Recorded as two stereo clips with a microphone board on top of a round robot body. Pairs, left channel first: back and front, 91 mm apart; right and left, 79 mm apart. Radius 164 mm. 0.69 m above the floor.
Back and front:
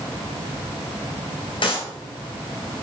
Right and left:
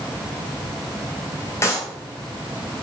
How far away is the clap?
About 5 m.